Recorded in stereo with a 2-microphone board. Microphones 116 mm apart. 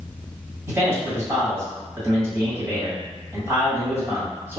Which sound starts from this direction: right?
A man speaking, at 0.7 s.